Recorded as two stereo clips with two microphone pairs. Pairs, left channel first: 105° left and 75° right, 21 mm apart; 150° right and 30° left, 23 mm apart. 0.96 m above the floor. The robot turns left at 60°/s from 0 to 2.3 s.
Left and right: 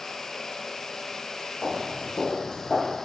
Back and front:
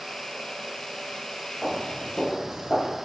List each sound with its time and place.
1.6 s footsteps: 95° left, 1.8 m; by 3.0 s 60° left, 1.1 m